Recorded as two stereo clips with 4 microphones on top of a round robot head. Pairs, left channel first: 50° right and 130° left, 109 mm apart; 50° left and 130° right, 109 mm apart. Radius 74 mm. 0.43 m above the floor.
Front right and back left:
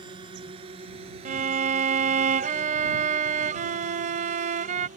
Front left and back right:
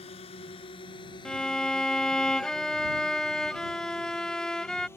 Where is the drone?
85° left; by 5.0 s 120° left.